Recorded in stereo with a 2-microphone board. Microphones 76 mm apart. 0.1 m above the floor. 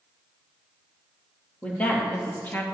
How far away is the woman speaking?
About 3 m.